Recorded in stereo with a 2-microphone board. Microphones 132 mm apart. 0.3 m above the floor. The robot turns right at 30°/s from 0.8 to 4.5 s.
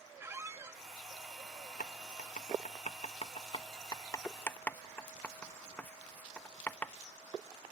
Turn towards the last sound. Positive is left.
turn(degrees=15)  # may be behind; listen again after turning